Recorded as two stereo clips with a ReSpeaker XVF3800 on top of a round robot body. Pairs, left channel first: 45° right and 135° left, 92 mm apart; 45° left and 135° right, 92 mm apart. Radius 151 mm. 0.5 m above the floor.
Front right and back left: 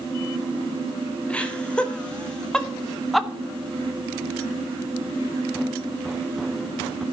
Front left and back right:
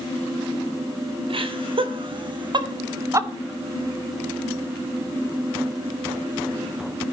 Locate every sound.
1.3 s laughter: 120° right, 3.5 m; by 3.3 s 140° right, 1.4 m